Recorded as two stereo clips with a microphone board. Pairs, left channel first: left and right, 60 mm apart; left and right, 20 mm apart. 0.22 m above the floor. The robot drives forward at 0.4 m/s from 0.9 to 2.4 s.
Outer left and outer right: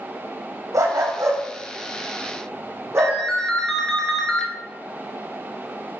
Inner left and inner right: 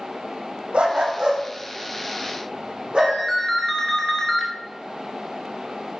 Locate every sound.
0.7 s a dog barking: 65° right (ahead or behind), 2.5 m; by 3.2 s 55° right (ahead or behind), 3 m
3.0 s a ringtone: 10° left (ahead or behind), 2.5 m